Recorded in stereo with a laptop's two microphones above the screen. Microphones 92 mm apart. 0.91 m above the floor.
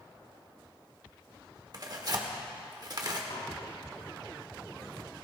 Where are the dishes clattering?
85° left, 5 m.